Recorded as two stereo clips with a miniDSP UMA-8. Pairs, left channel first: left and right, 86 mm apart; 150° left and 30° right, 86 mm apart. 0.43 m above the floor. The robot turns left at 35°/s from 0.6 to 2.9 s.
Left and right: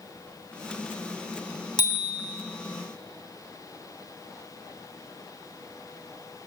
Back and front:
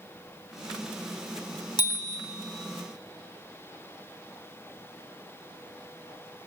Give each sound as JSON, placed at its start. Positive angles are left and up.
{"t": 1.8, "sound": "a bicycle bell", "azimuth_deg": 125, "distance_m": 2.5}